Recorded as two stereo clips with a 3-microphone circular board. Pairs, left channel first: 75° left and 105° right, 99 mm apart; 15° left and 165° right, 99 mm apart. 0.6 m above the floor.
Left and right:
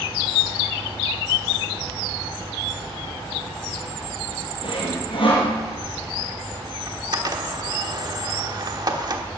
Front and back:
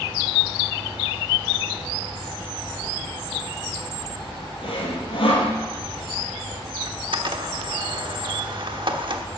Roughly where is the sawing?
Ahead left.